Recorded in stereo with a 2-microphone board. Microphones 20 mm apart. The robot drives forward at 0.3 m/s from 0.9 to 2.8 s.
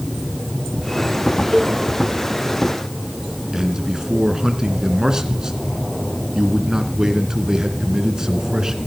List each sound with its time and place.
1.5 s a cowbell: 25° right (ahead or behind), 0.9 m
3.5 s a man speaking: 25° right (ahead or behind), 2 m